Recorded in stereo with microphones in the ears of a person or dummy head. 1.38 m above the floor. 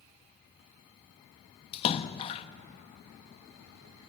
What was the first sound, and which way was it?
A splash, 30° left (ahead or behind).